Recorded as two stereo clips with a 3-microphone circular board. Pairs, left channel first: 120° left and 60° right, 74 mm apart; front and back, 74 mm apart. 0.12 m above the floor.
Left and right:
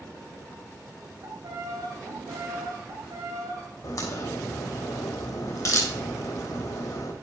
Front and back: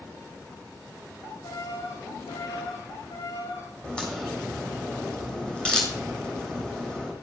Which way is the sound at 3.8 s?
80° left.